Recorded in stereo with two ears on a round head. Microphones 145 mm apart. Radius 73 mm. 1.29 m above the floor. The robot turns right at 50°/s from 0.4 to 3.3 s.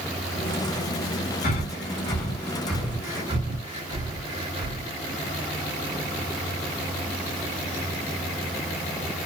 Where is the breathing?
60° left (ahead or behind), 2.5 m; by 4.9 s 30° right (ahead or behind), 2.5 m.